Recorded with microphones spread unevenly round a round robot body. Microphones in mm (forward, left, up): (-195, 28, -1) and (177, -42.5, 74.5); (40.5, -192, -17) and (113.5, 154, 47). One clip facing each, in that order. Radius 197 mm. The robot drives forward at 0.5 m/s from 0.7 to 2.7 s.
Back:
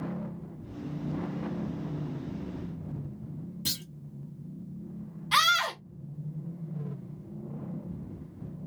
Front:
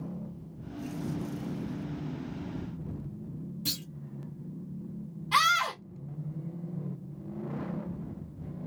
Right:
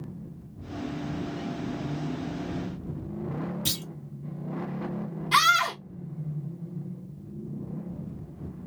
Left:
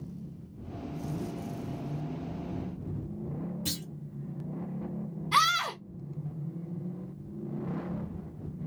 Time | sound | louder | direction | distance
3.6 | a clunk | front 1 dB, right 2 dB | 145° right | 2 m
5.3 | a scream | back 1 dB, right 4 dB | 160° right | 1.7 m